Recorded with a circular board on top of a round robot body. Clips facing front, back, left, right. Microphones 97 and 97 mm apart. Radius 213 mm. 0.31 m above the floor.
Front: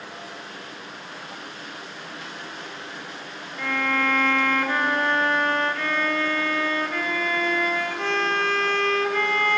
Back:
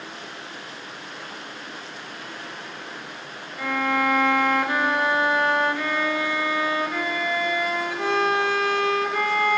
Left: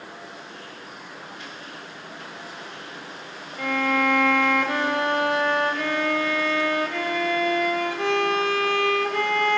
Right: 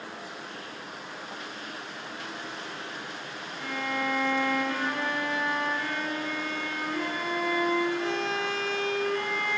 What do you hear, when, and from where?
3.6 s a violin: 100° left, 2.5 m